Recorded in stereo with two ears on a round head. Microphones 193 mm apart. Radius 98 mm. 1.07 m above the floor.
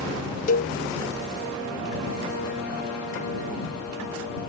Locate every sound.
0.5 s a cowbell: 40° left (ahead or behind)